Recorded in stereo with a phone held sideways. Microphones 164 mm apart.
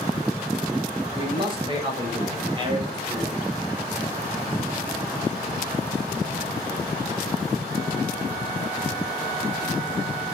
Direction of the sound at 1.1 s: 35° right (ahead or behind).